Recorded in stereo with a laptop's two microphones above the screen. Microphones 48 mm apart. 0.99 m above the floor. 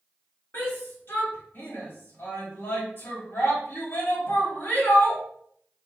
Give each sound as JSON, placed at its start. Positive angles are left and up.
{"t": 0.5, "sound": "a shout", "side_deg": 50, "distance_m": 3.0}